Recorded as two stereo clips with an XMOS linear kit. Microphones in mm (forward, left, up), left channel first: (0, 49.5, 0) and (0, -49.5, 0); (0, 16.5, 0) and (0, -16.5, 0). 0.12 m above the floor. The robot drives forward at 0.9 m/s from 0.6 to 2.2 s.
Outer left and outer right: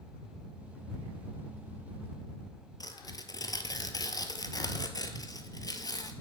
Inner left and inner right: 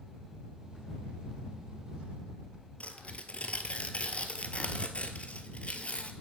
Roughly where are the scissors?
No scissors in this recording.